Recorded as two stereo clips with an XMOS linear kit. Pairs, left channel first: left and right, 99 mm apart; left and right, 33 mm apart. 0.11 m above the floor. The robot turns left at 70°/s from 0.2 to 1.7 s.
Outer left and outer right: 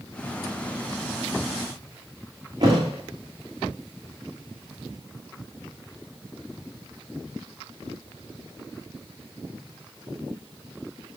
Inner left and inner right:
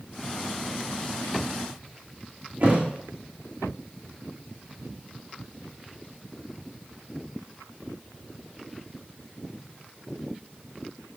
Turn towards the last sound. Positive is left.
turn(degrees=-40)  # may be behind; listen again after turning